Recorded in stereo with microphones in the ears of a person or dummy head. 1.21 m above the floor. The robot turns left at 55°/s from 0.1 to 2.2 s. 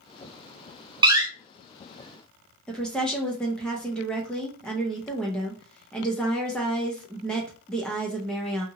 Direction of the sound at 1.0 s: 25° right (ahead or behind).